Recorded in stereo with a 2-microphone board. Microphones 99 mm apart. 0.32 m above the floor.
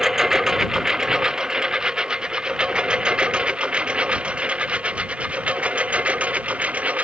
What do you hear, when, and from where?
0.0 s a lawn mower: 5° right (ahead or behind); by 7.0 s 15° right (ahead or behind)